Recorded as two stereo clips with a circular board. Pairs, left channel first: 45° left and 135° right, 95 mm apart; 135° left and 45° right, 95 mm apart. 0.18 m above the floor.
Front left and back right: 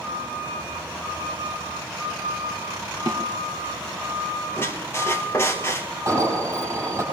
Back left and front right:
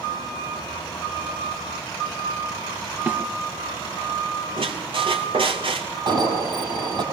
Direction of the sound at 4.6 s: 20° right.